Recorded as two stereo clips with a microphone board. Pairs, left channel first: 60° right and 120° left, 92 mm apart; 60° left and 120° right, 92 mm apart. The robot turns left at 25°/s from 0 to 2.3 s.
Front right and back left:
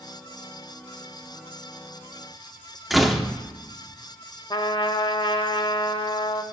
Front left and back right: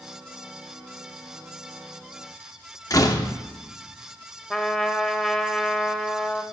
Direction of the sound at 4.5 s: 25° right.